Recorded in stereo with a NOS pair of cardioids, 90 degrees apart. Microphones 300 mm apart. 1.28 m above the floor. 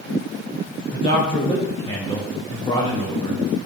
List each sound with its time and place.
0.9 s a man speaking: 15° left, 4.5 m